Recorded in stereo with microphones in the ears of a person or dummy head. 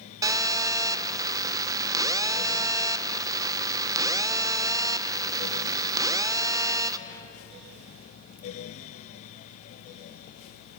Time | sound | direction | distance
0.2 | a phone buzzing | 15° right (ahead or behind) | 1.0 m